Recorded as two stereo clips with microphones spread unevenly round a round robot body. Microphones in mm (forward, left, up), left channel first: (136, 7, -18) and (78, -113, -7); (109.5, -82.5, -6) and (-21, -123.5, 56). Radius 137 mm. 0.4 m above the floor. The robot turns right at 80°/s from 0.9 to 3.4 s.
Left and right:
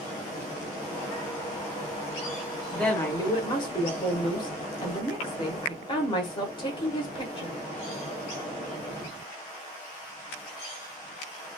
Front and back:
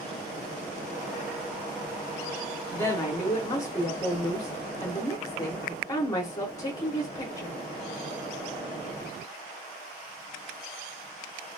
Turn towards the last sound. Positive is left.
turn(degrees=35)